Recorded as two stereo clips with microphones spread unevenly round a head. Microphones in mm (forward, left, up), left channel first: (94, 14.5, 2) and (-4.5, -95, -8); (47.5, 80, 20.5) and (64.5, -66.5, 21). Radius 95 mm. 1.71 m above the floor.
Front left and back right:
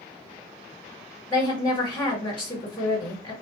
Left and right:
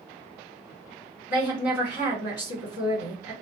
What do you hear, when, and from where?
1.3 s a woman speaking: 130° left, 1.6 m